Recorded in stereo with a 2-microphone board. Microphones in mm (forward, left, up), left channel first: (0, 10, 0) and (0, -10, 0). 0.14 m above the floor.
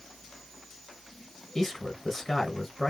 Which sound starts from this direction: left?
A man speaking, at 1.6 s.